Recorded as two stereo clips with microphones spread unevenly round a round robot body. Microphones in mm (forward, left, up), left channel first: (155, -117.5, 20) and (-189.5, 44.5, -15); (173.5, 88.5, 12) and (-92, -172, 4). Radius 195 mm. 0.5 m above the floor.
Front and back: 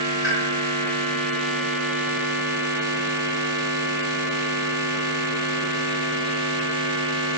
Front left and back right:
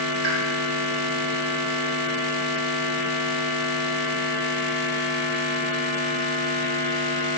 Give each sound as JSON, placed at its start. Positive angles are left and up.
{"t": 0.2, "sound": "a pop", "azimuth_deg": -115, "distance_m": 4.5}